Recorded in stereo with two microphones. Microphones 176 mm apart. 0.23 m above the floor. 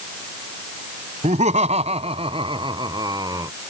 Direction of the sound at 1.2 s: 45° right (ahead or behind).